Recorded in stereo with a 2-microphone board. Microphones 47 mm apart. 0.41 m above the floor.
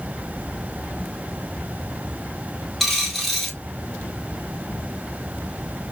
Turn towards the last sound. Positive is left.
turn(degrees=5)  # may be behind; listen again after turning